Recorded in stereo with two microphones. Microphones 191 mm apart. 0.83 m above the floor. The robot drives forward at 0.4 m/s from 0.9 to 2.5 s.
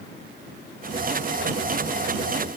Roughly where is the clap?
I don't hear a clap.